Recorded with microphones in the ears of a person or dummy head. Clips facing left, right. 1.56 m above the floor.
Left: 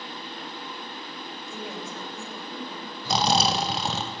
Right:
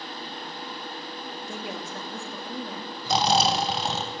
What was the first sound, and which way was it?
A woman speaking, 50° right (ahead or behind).